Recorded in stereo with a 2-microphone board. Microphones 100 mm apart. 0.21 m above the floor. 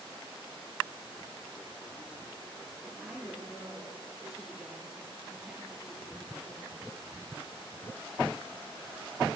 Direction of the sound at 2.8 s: 5° right (ahead or behind).